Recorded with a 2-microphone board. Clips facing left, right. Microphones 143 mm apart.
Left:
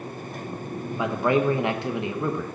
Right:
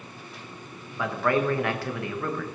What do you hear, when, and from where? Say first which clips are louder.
1.0 s a man speaking: left 2 dB; 20° left (ahead or behind), 1.1 m